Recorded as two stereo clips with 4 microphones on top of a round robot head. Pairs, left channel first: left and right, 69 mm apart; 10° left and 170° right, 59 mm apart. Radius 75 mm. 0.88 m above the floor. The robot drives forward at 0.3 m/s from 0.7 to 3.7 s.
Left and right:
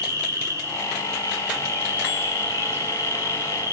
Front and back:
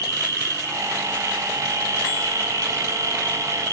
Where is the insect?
140° right, 4 m; by 3.7 s 145° right, 5 m.